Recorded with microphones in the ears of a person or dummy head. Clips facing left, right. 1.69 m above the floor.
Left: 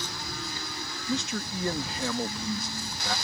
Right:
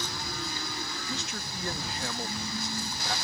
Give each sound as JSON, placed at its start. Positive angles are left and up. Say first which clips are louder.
{"t": 1.1, "sound": "a man speaking", "louder": "left 7 dB", "side_deg": 80}